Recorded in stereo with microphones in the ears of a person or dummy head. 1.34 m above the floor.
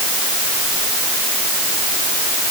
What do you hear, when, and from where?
Only background noise.